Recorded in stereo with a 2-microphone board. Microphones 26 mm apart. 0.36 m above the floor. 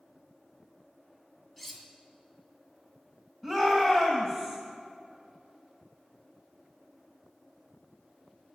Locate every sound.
1.6 s cutlery clinking: 5° left (ahead or behind), 2 m
3.4 s a shout: 20° left (ahead or behind), 2 m